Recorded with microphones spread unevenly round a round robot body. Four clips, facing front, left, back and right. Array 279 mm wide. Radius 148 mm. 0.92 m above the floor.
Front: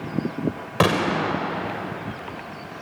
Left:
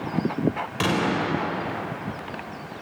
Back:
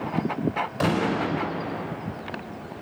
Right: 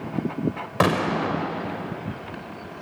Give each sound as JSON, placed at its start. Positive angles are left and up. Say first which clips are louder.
{"t": 0.8, "sound": "a gunshot", "louder": "right 3 dB, front 4 dB", "azimuth_deg": -30, "distance_m": 4.5}